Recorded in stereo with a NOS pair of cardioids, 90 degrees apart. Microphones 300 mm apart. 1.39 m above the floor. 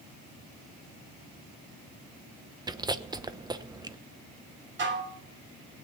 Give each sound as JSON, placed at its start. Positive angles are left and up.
{"t": 2.7, "sound": "chewing", "azimuth_deg": -15, "distance_m": 0.9}
{"t": 4.8, "sound": "dishes clattering", "azimuth_deg": -40, "distance_m": 3.0}